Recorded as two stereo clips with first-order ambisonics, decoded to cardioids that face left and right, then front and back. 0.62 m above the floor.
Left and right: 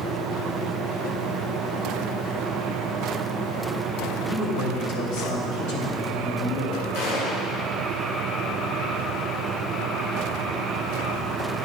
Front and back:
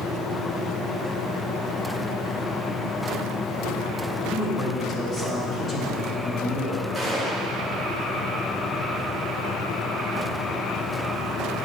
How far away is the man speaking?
About 2 m.